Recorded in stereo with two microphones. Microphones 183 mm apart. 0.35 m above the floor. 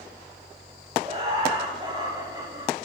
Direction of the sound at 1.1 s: 35° right (ahead or behind).